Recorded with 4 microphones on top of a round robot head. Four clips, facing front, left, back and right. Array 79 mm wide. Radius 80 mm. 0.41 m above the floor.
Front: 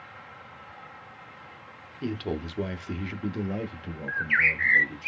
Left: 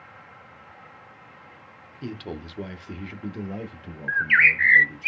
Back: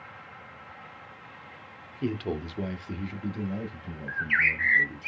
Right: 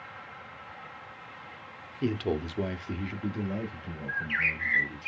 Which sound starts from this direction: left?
A bird, at 4.1 s.